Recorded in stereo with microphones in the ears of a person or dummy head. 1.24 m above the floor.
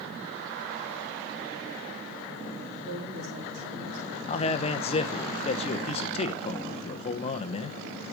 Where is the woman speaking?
45° right (ahead or behind), 3.5 m; by 4.2 s 65° right (ahead or behind), 3.5 m.